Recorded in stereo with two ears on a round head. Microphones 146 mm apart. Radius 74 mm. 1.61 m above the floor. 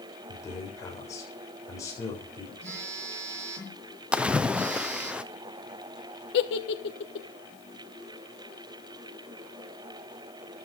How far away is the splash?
About 0.6 m.